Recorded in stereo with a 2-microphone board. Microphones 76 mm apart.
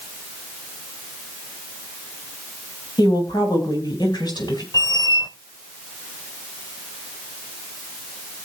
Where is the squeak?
60° left (ahead or behind), 0.9 m.